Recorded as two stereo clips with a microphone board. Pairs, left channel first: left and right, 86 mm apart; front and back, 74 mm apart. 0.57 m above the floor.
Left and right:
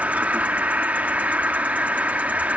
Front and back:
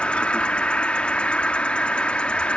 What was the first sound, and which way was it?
An insect, 45° right.